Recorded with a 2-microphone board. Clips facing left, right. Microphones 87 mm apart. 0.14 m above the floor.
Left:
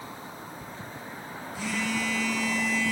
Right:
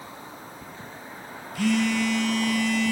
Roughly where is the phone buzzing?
Right.